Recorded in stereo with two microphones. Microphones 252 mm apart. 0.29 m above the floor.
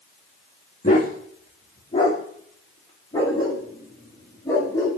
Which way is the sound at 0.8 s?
30° left (ahead or behind).